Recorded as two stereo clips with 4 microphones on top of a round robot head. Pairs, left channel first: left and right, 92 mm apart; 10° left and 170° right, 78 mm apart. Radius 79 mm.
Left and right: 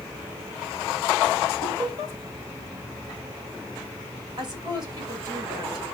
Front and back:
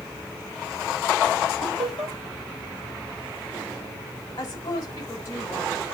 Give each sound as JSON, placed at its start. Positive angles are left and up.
{"t": 1.6, "sound": "laughter", "azimuth_deg": -145, "distance_m": 3.5}
{"t": 4.4, "sound": "a woman speaking", "azimuth_deg": -50, "distance_m": 5.5}